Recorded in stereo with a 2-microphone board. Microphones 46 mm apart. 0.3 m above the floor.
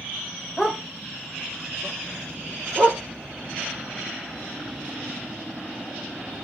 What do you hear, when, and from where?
0.6 s a dog barking: 5° left (ahead or behind), 1.2 m; by 3.0 s 45° right (ahead or behind), 2.0 m